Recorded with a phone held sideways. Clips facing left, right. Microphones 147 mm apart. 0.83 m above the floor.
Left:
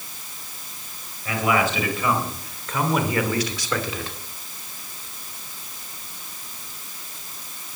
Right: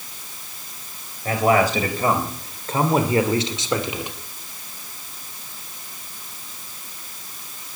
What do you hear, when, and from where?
1.2 s a man speaking: 40° right (ahead or behind), 4 m; by 4.2 s 15° right (ahead or behind), 2.0 m